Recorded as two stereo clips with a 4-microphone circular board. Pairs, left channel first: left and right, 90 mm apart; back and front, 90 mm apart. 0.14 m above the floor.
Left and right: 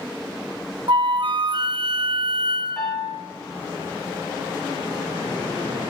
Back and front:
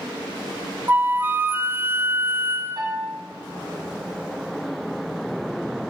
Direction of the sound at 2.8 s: 15° left.